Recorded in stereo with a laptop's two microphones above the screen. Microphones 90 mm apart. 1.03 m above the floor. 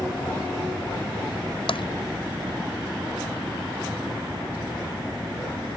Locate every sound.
1.7 s tapping: 80° left